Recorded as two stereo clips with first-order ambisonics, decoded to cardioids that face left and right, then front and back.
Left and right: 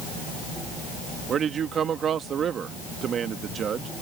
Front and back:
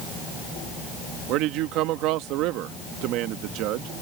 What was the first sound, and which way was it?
A man speaking, 150° right.